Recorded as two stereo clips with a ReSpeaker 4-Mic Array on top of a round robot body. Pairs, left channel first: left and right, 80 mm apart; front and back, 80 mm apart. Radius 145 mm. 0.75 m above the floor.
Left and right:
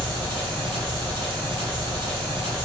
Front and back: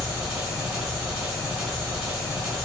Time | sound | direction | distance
0.0 | an engine running | 100° right | 1.8 m